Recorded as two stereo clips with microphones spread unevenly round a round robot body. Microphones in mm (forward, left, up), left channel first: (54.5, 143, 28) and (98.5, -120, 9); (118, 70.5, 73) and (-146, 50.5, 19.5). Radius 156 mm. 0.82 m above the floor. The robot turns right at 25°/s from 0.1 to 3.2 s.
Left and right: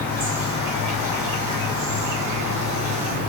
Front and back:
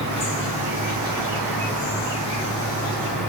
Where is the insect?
125° right, 2 m; by 3.3 s 45° right, 2 m.